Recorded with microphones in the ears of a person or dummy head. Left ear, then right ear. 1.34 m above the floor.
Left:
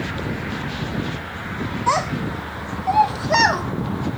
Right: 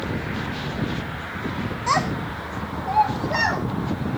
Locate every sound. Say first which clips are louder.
1.9 s a child speaking: left 2 dB; 15° left (ahead or behind), 0.8 m; by 3.6 s 65° left (ahead or behind), 1.2 m